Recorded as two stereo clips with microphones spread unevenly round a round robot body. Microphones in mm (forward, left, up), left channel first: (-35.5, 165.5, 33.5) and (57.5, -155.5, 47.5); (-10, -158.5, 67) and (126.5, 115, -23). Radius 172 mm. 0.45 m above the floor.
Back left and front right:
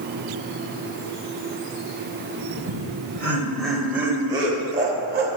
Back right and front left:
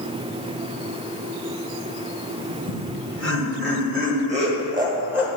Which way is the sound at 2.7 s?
30° left.